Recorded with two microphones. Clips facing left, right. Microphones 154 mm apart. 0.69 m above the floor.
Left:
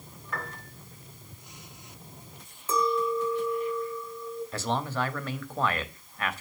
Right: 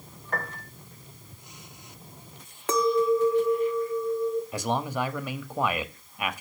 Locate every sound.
0.3 s a piano: 55° right (ahead or behind), 1.7 m
2.7 s a clink: 75° right (ahead or behind), 0.6 m
4.5 s a man speaking: 15° right (ahead or behind), 0.7 m